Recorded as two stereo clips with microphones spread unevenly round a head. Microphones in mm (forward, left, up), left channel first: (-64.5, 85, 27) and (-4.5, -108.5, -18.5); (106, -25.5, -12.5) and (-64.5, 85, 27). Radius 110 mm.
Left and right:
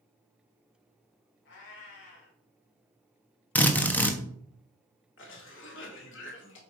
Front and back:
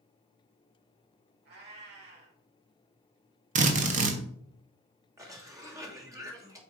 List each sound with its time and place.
1.4 s a cat meowing: 115° left, 3 m
3.5 s a drill: 175° left, 1.2 m
5.2 s a cough: 75° left, 2.5 m